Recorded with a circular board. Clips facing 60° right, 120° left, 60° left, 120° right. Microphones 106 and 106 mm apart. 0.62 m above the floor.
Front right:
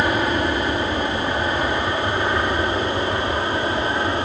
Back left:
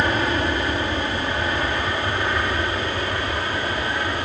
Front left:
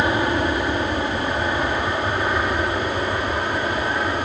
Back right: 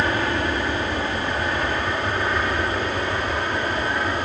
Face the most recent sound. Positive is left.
turn(degrees=-15)